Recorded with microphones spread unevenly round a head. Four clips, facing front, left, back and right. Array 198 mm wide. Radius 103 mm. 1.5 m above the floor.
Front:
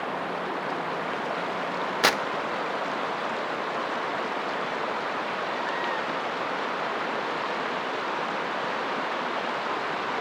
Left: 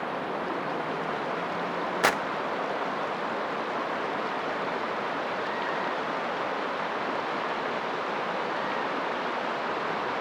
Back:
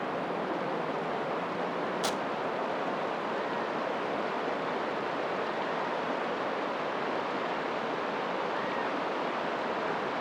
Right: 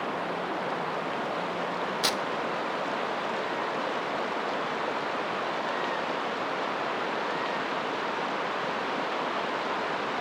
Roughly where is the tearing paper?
Ahead left.